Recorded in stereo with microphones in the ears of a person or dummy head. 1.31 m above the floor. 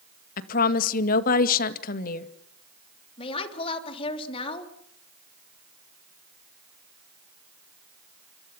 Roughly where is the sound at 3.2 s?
Left.